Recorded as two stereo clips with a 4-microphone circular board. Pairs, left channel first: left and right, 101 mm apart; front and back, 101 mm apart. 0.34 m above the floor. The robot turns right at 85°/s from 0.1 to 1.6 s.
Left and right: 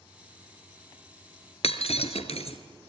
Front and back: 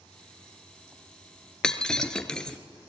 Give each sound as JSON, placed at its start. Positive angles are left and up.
{"t": 1.6, "sound": "breaking glass", "azimuth_deg": 85, "distance_m": 1.4}